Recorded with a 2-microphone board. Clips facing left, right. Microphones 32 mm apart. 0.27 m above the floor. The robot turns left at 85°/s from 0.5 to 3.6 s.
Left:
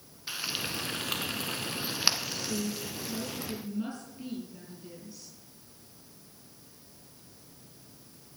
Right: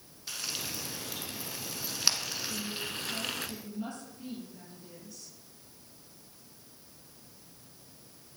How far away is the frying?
About 1.6 m.